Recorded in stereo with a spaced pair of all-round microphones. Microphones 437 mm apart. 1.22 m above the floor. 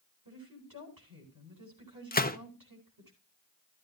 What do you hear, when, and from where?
0.2 s a woman speaking: 50° right (ahead or behind), 8.5 m
2.1 s a gunshot: 20° left (ahead or behind), 0.8 m